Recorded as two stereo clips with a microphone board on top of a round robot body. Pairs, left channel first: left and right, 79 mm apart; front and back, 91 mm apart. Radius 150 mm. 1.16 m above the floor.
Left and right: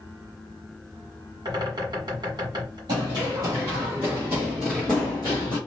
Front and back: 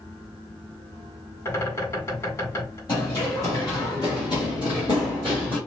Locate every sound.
1.4 s a bird: 60° right, 1.8 m
2.9 s running footsteps: 55° right, 1.9 m; by 5.6 s 80° left, 1.2 m